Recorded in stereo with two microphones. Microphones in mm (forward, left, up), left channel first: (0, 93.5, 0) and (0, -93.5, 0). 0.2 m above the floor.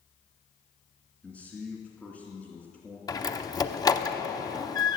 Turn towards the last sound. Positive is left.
turn(degrees=20)  # may be behind; listen again after turning